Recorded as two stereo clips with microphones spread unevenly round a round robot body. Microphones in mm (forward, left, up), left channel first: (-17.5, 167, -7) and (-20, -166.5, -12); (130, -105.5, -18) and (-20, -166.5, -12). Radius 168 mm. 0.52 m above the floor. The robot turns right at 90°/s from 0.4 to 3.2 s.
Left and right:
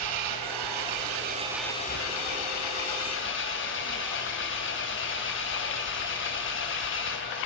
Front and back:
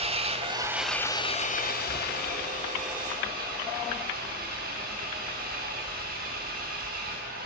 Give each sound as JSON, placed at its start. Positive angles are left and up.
{"t": 0.0, "sound": "an engine running", "azimuth_deg": -110, "distance_m": 2.5}